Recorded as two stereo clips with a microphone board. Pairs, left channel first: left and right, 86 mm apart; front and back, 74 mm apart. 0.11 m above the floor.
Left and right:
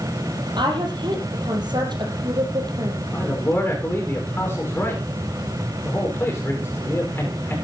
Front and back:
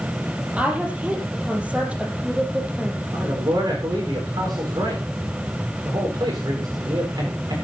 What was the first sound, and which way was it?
A woman speaking, 110° right.